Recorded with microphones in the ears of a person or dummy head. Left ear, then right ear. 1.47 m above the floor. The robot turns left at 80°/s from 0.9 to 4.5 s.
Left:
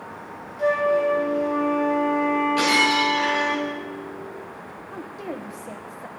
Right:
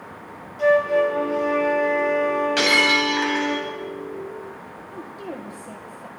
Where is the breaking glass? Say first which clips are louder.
Right 3 dB; 55° right, 6.5 m; by 3.6 s 140° right, 6.5 m.